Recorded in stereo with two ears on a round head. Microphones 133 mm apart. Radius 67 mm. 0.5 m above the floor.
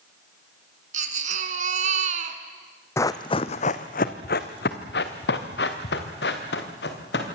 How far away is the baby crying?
About 2 m.